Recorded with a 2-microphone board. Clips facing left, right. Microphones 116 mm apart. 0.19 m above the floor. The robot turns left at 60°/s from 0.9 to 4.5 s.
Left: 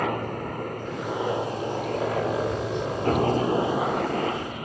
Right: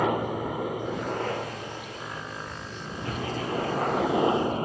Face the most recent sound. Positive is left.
turn(degrees=-30)  # may be behind; listen again after turning